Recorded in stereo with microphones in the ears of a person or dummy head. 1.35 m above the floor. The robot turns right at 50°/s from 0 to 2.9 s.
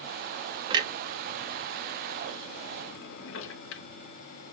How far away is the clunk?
About 0.5 m.